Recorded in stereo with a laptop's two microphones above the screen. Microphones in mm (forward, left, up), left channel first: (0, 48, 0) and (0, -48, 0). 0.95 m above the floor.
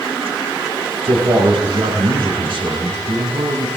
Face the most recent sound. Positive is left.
turn(degrees=-70)  # may be behind; listen again after turning